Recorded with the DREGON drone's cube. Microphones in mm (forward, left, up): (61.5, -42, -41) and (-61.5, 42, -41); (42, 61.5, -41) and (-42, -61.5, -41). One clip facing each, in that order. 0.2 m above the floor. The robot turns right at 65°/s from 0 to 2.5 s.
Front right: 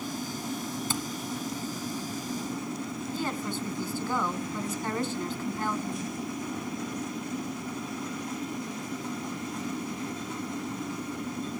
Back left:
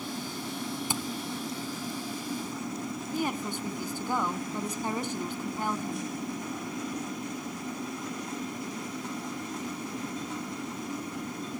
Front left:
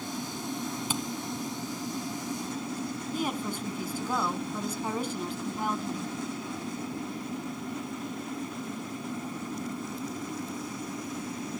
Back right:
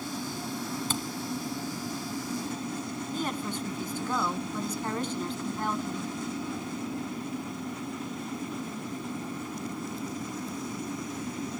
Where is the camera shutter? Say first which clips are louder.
Front right 2 dB, front left 1 dB; 110° left, 1.4 m; by 1.0 s 120° left, 1.4 m.